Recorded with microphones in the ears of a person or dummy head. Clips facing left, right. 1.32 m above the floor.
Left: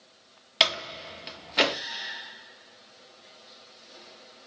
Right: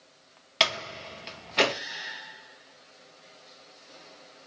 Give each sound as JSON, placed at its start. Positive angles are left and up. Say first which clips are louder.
{"t": 0.6, "sound": "a door slam", "louder": "even", "side_deg": -5, "distance_m": 0.7}